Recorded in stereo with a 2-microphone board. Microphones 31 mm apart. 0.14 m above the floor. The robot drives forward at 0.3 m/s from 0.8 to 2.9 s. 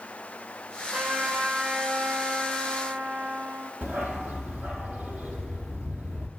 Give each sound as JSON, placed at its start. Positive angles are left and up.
{"t": 0.9, "sound": "a trumpet", "side_deg": -65, "distance_m": 5.5}
{"t": 3.8, "sound": "a dog barking", "side_deg": -65, "distance_m": 2.0}